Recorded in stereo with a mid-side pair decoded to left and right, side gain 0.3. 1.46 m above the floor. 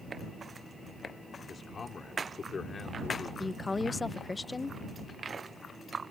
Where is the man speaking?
55° left.